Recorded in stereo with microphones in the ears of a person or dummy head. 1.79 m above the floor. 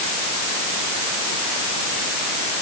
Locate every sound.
Only background noise.